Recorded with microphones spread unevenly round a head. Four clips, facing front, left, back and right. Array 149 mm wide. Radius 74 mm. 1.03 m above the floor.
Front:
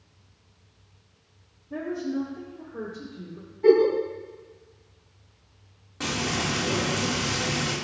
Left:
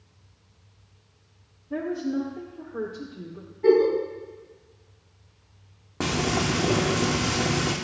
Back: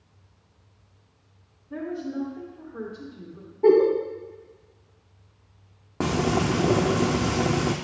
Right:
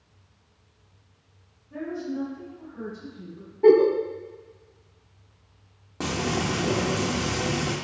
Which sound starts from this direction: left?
A woman speaking, at 1.7 s.